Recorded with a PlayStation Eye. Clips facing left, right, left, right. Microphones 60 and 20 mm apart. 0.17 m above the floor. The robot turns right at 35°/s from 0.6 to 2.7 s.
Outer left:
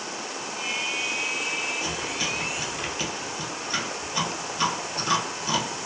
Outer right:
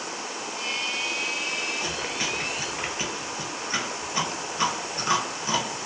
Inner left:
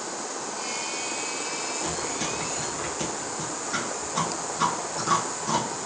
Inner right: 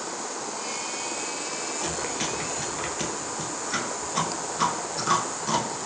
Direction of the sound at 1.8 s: 55° right (ahead or behind).